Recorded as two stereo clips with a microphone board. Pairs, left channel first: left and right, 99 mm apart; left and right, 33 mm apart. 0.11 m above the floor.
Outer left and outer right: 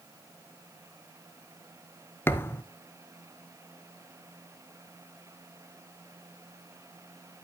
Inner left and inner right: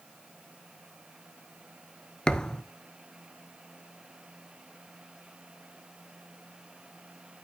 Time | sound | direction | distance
2.3 | a thud | 25° left (ahead or behind) | 0.6 m